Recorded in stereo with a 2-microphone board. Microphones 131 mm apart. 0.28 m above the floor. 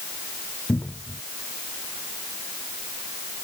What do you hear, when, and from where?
0.7 s a cupboard door: 15° left (ahead or behind)